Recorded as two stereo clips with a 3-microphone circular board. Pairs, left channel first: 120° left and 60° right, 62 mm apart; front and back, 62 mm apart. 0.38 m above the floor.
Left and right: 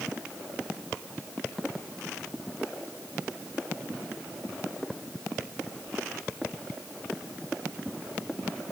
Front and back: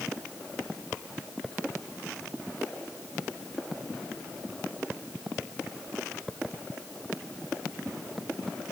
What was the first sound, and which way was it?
Only background noise.